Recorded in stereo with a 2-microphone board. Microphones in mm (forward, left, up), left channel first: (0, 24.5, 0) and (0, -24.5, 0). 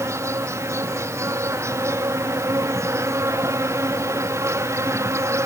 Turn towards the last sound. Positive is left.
turn(degrees=-80)